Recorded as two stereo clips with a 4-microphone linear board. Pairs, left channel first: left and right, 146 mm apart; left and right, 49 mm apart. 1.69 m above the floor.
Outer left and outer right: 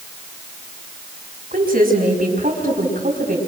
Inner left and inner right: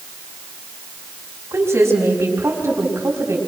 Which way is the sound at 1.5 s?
75° right (ahead or behind).